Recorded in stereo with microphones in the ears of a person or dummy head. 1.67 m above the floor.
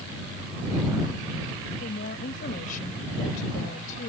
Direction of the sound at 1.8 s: 50° left (ahead or behind).